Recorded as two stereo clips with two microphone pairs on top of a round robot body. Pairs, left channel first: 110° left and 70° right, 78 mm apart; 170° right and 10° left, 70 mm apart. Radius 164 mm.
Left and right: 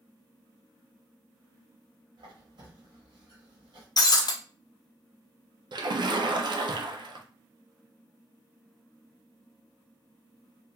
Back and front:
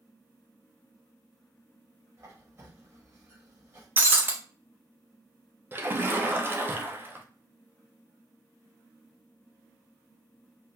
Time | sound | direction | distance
2.2 | a squeak | 45° right | 0.7 m
4.0 | breaking glass | 75° left | 0.5 m
5.7 | a splash | 50° right | 0.5 m